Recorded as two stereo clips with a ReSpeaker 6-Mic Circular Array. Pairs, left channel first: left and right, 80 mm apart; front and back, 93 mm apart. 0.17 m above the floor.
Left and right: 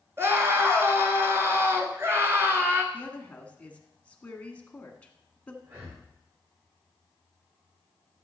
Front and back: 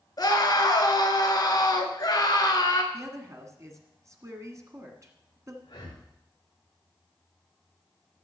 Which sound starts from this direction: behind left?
A woman speaking, at 2.9 s.